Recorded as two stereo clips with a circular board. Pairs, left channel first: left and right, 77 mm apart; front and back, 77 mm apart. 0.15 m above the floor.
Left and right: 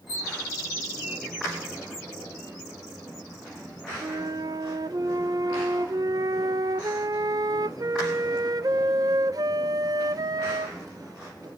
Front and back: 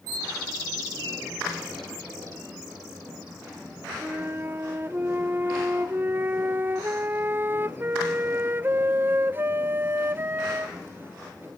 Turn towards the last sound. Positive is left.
turn(degrees=-120)